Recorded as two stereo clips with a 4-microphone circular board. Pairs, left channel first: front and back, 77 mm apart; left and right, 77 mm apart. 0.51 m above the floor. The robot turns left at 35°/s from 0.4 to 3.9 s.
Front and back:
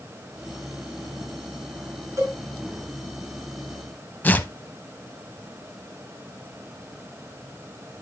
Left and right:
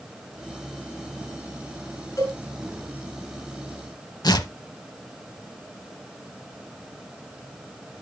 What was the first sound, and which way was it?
A cowbell, 130° left.